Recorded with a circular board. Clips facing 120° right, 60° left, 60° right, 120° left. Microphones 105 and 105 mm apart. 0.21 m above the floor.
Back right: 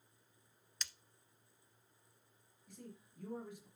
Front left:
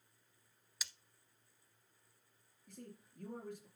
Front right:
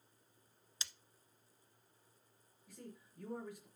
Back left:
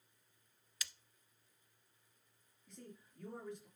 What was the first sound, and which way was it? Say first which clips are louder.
Breaking glass: even, back left 1 dB; 20° right.